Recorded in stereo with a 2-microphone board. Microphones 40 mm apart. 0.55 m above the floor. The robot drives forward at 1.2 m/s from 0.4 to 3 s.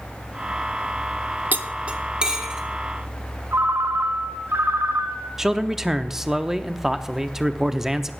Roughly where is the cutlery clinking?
Right.